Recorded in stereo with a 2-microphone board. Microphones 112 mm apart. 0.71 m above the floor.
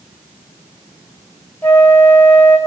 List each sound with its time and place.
1.6 s a flute: 15° left (ahead or behind), 1.4 m